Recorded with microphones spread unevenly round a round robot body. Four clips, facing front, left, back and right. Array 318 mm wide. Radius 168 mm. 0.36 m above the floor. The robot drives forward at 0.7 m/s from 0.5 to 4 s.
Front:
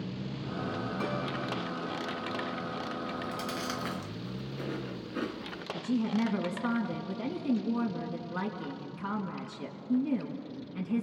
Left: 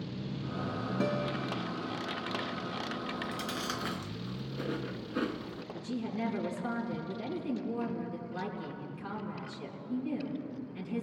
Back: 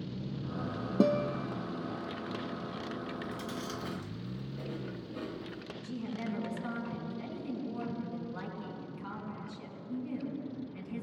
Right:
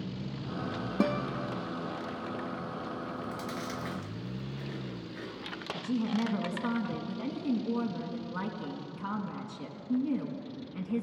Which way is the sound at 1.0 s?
160° right.